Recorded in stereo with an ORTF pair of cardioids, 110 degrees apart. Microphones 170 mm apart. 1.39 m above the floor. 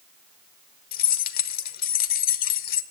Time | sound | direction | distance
0.9 | keys jangling | 70° left | 0.8 m